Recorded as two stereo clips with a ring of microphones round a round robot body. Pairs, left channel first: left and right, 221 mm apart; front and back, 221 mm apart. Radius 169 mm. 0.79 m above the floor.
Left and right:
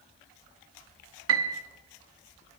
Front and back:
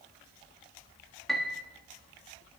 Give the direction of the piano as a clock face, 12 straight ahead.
3 o'clock.